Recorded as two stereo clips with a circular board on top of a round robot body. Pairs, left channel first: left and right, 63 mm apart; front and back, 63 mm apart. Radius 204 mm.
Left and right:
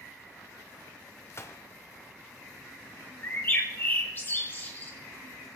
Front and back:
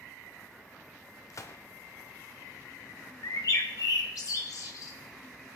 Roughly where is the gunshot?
Ahead left.